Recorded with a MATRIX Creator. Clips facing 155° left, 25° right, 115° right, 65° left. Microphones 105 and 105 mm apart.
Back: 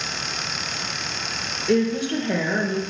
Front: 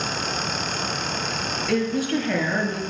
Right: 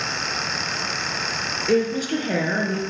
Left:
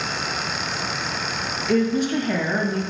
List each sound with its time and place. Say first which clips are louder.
1.7 s a woman speaking: back 3 dB, even; 140° right, 2.5 m